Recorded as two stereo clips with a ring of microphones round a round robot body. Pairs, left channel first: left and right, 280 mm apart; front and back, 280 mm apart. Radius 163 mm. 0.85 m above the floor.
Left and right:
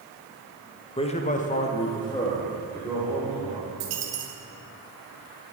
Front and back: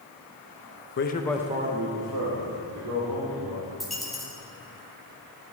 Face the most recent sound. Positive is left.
turn(degrees=-90)